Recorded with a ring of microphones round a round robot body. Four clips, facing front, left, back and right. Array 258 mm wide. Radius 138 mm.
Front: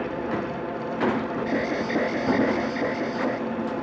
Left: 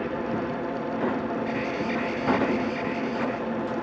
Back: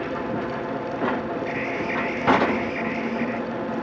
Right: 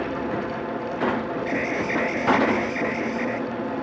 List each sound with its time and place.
1.5 s an alarm: 35° right